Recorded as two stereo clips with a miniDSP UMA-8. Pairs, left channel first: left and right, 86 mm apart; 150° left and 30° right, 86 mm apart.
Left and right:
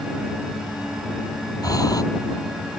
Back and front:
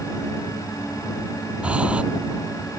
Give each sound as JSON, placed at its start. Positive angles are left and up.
{"t": 1.6, "sound": "breathing", "azimuth_deg": 45}